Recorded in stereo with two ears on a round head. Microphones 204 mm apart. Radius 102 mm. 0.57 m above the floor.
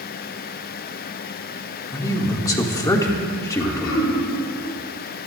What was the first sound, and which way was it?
A man speaking, 15° left (ahead or behind).